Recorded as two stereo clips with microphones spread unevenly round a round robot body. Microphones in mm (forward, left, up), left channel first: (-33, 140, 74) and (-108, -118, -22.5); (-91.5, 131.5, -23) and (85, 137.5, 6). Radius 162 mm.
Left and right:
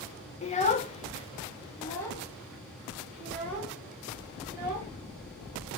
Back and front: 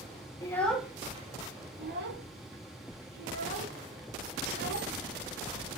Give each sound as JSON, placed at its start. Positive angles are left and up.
{"t": 0.4, "sound": "a child speaking", "azimuth_deg": 155, "distance_m": 0.5}